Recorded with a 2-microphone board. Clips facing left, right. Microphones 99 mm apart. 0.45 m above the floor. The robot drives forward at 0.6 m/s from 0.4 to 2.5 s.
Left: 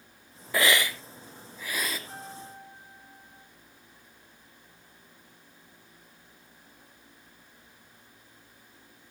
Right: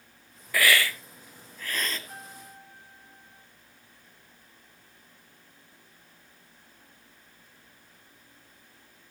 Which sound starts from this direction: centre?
A piano, at 2.1 s.